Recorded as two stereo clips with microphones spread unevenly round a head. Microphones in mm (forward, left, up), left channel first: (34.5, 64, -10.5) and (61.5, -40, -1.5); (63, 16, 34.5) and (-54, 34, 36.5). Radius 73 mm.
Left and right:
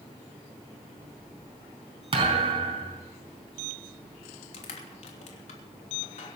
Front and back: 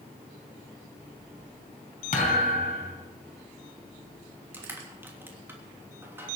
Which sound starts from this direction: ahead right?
A thud, at 2.1 s.